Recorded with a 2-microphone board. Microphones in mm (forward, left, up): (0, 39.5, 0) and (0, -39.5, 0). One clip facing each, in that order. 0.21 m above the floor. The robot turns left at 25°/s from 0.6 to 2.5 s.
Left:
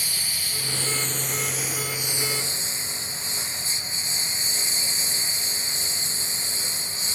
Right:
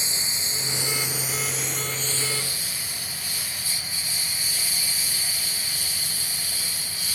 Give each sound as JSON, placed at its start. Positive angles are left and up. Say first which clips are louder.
{"t": 0.0, "sound": "a lawn mower", "louder": "right 1 dB", "azimuth_deg": -155}